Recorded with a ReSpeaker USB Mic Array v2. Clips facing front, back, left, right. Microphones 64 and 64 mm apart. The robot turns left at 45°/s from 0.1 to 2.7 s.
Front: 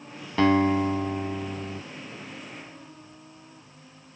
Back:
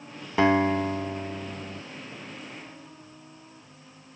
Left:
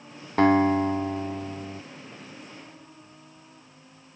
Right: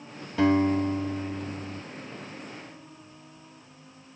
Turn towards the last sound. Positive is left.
turn(degrees=0)